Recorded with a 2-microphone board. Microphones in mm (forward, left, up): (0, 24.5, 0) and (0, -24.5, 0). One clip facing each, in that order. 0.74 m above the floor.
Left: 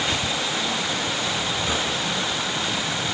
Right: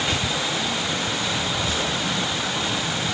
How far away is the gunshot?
About 6.5 m.